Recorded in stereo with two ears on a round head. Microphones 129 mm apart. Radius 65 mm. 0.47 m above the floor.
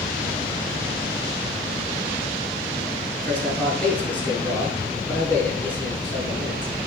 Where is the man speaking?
10° left (ahead or behind), 6 m.